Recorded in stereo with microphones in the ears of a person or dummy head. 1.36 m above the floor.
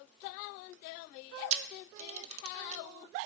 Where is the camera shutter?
35° right (ahead or behind), 0.7 m.